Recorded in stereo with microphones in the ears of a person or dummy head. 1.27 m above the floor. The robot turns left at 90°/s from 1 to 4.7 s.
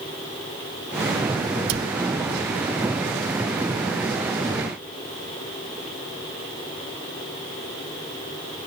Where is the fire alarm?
No fire alarm in this recording.